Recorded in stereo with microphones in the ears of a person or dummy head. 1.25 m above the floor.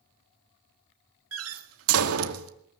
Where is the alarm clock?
No alarm clock in this recording.